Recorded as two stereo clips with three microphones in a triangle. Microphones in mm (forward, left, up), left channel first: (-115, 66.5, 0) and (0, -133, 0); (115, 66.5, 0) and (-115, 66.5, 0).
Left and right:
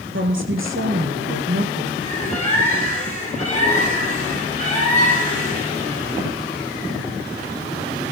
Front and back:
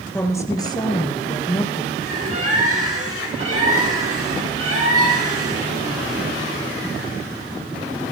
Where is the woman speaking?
80° right, 3 m; by 1.9 s 60° right, 4.5 m.